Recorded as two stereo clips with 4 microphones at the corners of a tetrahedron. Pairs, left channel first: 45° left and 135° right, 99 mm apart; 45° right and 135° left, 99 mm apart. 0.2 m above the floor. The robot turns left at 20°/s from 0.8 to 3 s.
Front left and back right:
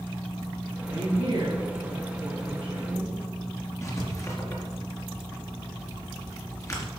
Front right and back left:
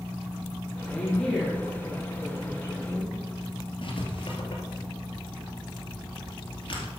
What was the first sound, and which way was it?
A woman speaking, 120° right.